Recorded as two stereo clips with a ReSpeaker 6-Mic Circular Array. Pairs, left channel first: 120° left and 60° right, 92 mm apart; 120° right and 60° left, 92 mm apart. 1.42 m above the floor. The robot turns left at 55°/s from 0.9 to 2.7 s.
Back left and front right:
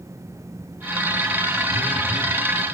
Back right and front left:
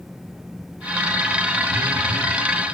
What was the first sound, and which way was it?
A phone buzzing, 115° right.